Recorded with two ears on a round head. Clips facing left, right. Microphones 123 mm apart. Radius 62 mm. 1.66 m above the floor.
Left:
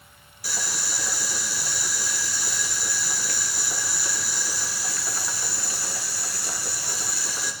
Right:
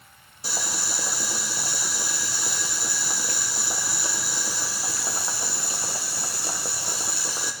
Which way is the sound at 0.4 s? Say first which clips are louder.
Right 2 dB; 25° right (ahead or behind).